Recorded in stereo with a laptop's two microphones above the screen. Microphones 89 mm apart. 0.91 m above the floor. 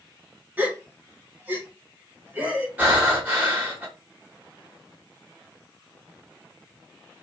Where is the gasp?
15° right (ahead or behind), 0.9 m.